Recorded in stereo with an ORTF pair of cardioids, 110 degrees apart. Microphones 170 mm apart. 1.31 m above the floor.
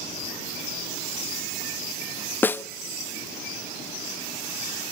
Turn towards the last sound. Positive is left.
turn(degrees=10)